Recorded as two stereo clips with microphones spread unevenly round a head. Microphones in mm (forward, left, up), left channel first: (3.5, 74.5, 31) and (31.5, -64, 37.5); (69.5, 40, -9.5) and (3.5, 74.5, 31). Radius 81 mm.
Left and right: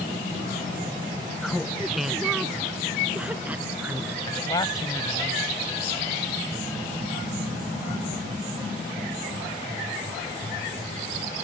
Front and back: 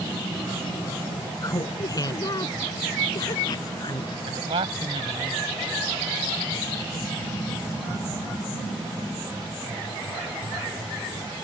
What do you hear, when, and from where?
1.4 s laughter: 15° left; by 4.2 s straight ahead
4.3 s a man speaking: 170° left